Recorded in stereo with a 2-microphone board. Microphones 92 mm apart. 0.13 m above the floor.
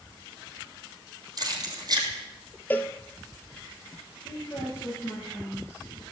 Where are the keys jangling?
45° right (ahead or behind), 3 m.